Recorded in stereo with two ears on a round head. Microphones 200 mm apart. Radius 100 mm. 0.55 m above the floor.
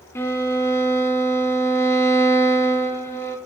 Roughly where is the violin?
Centre.